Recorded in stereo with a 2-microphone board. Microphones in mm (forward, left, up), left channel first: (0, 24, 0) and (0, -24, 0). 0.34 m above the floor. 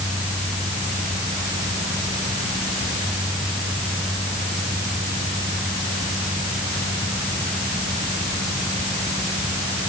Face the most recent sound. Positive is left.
No sound to turn to.